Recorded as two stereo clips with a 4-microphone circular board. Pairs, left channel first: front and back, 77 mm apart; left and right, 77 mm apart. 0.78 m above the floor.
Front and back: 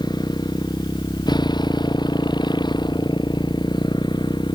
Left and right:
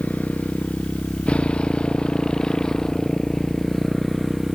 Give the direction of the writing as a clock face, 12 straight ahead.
No writing in this recording.